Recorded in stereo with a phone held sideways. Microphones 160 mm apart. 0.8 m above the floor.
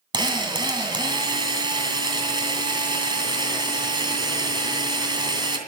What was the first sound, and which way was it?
A drill, 30° right (ahead or behind).